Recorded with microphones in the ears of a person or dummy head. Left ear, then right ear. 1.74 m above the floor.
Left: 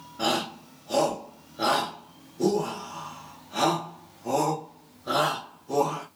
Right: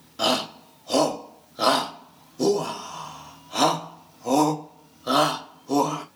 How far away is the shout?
About 1.2 m.